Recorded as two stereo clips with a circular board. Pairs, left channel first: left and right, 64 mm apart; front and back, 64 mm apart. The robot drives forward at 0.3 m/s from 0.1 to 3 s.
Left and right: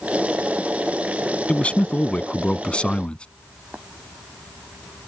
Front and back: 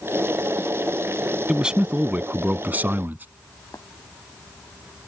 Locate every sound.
1.5 s a man speaking: 115° left; by 3.2 s 150° left
3.7 s tapping: 25° right